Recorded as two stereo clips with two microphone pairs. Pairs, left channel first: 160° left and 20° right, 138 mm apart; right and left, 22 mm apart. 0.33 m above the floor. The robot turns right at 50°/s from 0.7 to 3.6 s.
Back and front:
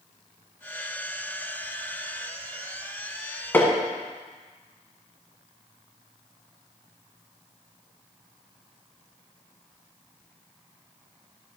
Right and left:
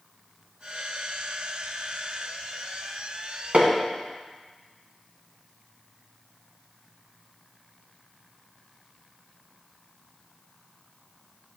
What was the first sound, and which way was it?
Hammering, 85° left.